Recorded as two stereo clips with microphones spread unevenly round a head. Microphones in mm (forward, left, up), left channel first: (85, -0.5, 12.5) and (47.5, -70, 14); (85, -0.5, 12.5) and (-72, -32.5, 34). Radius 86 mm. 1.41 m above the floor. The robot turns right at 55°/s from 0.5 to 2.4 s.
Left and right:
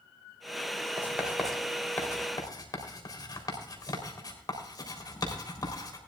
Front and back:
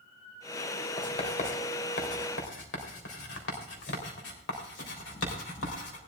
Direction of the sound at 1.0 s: 55° right.